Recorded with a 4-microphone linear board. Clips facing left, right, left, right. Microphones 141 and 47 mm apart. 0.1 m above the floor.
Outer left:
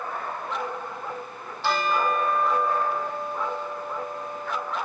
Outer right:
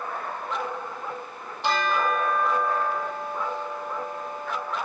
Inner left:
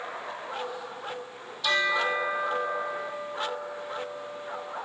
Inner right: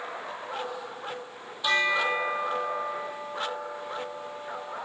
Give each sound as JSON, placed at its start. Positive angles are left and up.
{"t": 1.6, "sound": "a bell", "side_deg": -20, "distance_m": 1.8}